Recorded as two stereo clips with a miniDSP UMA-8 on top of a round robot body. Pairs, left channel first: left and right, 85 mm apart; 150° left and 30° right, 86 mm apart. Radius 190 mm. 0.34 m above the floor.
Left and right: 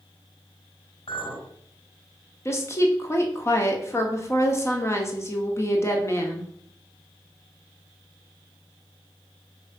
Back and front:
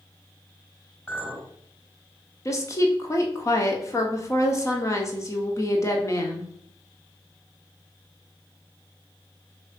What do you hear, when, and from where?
1.1 s a clink: 75° left, 4 m
2.5 s a woman speaking: 125° left, 1.7 m